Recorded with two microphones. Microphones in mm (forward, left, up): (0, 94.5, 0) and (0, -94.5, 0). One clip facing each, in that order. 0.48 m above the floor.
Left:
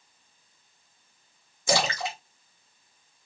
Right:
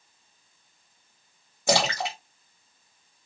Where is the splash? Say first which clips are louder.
Right 2 dB; 65° right (ahead or behind), 2 m.